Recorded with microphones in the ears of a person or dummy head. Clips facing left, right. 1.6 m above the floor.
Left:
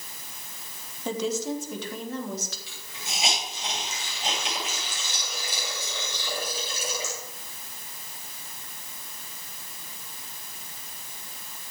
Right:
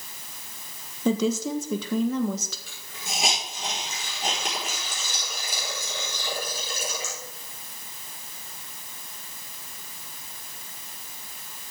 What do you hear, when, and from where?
1.1 s a woman speaking: 75° right (ahead or behind), 1.4 m
2.7 s a hiss: 45° right (ahead or behind), 4.5 m